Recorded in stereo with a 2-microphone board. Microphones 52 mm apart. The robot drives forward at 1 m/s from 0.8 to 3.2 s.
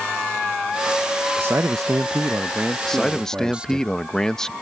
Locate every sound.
1.4 s a man speaking: 40° right (ahead or behind); by 3.8 s 20° right (ahead or behind)
2.8 s a man speaking: 10° left (ahead or behind)